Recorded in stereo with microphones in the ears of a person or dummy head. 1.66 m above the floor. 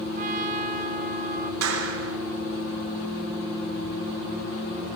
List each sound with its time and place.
0.1 s a trumpet: 45° right (ahead or behind), 1.7 m
1.6 s a clap: 80° right, 5 m